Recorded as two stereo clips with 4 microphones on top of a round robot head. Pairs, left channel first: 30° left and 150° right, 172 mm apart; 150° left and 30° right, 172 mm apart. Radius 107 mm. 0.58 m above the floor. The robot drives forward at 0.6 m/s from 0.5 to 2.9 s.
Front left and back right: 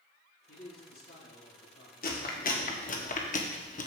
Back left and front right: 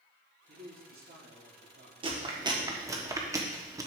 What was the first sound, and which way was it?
A man speaking, straight ahead.